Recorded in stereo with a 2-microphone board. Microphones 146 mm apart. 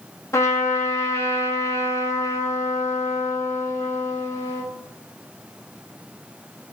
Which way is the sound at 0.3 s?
20° left (ahead or behind).